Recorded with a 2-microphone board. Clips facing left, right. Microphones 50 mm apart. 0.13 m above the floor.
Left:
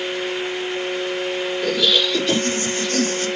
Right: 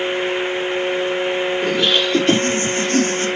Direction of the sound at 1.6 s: 50° right (ahead or behind).